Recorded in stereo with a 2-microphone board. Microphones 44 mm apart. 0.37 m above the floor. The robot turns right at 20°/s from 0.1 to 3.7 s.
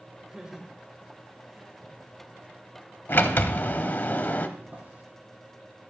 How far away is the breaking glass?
I don't hear breaking glass.